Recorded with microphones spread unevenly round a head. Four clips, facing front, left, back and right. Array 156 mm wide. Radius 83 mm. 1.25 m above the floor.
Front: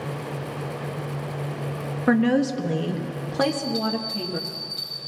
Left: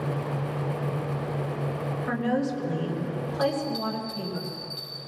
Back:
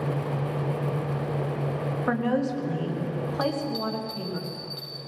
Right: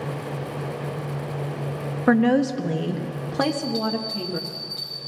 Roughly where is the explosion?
I don't hear an explosion.